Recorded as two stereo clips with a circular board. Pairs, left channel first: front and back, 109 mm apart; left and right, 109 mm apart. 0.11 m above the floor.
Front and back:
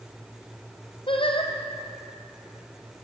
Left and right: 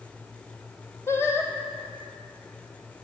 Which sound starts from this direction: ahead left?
Singing, at 1.1 s.